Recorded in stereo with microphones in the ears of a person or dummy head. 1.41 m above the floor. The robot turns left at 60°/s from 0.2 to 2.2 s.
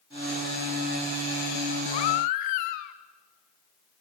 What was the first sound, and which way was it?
A baby crying, 30° left (ahead or behind).